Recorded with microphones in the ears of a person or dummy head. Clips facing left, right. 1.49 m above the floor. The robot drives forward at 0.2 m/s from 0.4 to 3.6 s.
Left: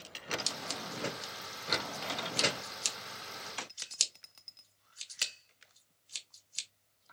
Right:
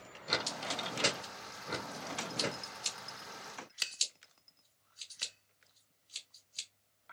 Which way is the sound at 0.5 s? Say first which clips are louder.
Right 2 dB; 75° left (ahead or behind).